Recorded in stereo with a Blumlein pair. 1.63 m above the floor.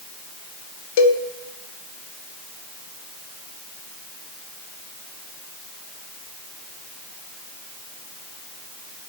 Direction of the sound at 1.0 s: 50° left.